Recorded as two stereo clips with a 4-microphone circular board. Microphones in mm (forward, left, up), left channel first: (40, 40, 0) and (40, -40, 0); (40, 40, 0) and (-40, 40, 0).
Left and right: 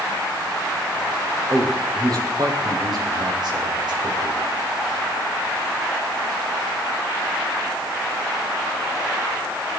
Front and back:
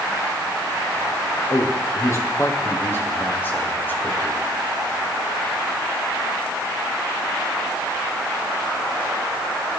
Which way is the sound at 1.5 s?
45° right.